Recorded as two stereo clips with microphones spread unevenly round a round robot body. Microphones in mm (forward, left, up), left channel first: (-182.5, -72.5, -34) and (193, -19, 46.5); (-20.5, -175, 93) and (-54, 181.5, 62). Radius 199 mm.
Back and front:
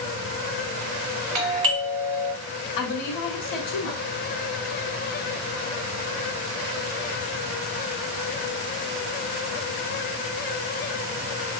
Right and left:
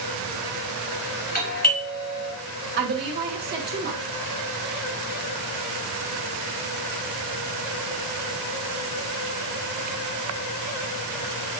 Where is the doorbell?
20° right, 1.8 m.